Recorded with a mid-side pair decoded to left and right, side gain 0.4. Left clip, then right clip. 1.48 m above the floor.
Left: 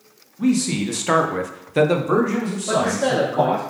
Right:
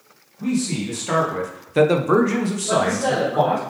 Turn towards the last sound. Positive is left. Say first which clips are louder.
# even
turn(degrees=60)